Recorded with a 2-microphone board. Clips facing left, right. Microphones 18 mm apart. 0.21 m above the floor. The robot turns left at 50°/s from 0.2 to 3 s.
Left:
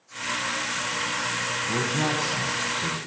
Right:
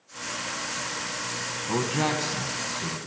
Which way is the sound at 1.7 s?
135° right.